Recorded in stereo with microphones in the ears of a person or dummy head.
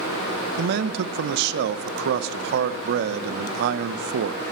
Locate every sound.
0.6 s a man speaking: 65° right (ahead or behind), 0.7 m